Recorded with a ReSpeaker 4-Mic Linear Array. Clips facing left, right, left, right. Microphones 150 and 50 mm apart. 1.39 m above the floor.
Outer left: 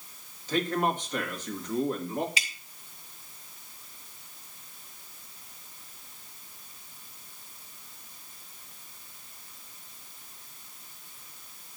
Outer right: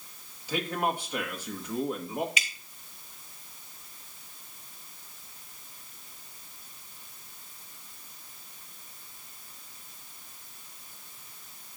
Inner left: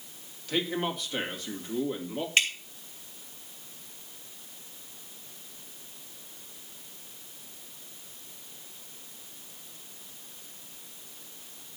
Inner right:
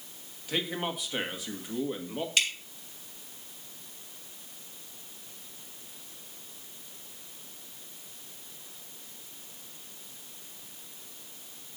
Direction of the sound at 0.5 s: 10° right (ahead or behind).